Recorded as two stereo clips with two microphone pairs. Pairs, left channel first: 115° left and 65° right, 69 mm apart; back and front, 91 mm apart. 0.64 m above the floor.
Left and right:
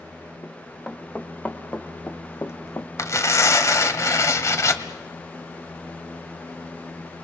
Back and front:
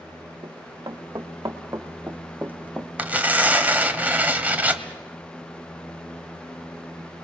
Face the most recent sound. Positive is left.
turn(degrees=70)